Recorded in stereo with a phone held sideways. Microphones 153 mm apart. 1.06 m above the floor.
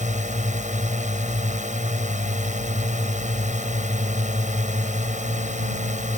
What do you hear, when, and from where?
0.0 s a drone: 55° right (ahead or behind)